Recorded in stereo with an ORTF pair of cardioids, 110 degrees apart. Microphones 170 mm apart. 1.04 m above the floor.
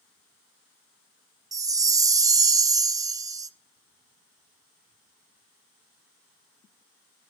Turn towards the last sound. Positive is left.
turn(degrees=-20)